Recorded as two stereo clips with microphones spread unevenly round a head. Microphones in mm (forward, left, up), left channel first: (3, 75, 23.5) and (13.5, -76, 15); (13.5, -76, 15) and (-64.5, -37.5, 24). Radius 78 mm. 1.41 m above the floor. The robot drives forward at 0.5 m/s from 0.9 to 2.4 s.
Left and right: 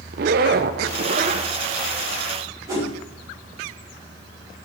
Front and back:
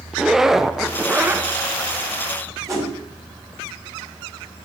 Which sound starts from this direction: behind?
A whoosh, at 2.7 s.